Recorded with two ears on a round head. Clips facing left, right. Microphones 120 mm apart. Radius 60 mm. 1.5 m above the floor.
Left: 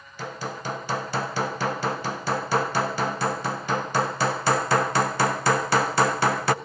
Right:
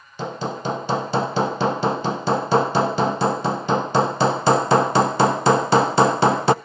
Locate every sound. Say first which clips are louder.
0.2 s hammering: right 6 dB; 20° right (ahead or behind), 0.5 m